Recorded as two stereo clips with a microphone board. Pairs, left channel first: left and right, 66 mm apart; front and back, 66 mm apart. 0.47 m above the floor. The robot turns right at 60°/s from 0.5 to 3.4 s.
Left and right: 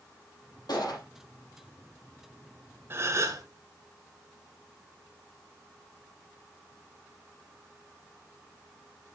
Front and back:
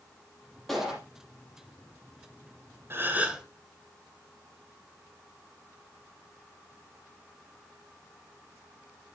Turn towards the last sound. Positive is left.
turn(degrees=-105)